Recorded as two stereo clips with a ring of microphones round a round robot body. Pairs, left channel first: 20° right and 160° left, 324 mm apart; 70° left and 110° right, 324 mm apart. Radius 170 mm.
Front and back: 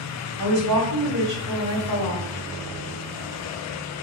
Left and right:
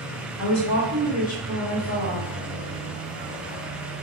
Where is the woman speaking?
105° left, 2.0 m.